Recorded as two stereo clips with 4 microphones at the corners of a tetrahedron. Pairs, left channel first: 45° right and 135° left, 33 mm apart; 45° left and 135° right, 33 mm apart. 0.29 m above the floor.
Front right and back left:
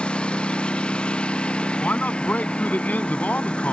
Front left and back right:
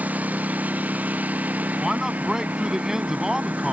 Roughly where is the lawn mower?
Right.